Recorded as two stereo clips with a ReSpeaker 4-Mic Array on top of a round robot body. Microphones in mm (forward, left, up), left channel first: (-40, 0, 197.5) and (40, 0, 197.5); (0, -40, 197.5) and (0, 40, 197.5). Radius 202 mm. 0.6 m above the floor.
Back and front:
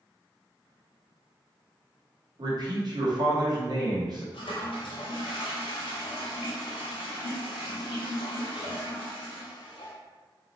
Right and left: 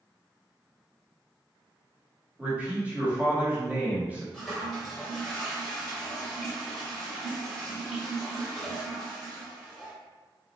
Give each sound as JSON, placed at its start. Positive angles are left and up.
{"t": 2.4, "sound": "a man speaking", "azimuth_deg": 20, "distance_m": 1.5}
{"t": 4.3, "sound": "a toilet flushing", "azimuth_deg": 180, "distance_m": 0.7}